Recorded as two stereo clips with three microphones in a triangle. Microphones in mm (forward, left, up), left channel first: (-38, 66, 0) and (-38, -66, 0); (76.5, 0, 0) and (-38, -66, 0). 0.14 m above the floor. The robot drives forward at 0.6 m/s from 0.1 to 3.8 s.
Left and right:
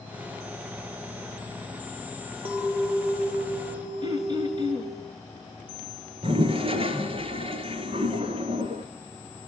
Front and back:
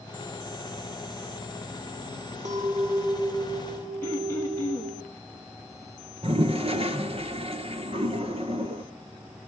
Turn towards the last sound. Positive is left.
turn(degrees=-125)